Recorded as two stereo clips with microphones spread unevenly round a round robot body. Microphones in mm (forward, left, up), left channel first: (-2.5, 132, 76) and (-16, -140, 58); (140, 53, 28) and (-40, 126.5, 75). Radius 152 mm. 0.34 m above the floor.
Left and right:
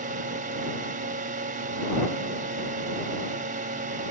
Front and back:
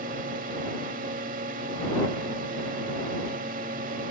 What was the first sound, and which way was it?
A drone, 145° right.